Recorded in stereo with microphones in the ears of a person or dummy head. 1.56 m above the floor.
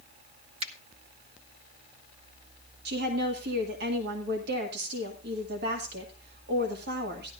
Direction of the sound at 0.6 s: 35° right (ahead or behind).